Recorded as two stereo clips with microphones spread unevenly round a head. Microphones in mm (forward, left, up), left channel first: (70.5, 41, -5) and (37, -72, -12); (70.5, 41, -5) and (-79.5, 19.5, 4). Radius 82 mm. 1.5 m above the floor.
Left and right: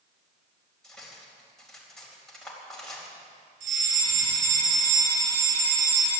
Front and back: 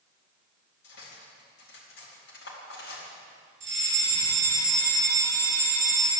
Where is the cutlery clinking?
10° right, 4 m.